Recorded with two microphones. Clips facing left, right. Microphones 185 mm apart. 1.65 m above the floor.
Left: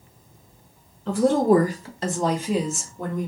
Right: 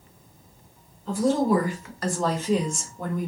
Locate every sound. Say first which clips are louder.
1.1 s a woman speaking: left 4 dB; 75° left (ahead or behind), 0.6 m; by 3.3 s 5° right (ahead or behind), 1.2 m